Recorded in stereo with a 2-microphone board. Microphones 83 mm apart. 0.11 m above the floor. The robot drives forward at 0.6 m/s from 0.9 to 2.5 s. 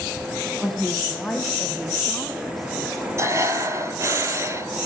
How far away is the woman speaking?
About 3.5 m.